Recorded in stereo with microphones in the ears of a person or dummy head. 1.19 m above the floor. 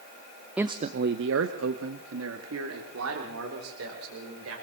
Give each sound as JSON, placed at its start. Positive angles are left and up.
{"t": 0.6, "sound": "a man speaking", "side_deg": -10, "distance_m": 0.5}